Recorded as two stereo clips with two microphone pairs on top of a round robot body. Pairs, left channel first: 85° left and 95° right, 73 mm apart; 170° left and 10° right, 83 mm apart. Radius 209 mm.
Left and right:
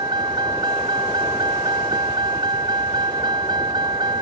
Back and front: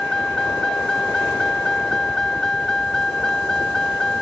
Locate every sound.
0.0 s a vehicle: 105° right